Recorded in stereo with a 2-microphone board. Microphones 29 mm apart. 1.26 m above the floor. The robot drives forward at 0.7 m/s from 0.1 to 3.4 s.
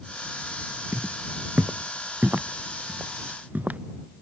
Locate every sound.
0.9 s footsteps: 75° right (ahead or behind); by 3.8 s 70° right (ahead or behind)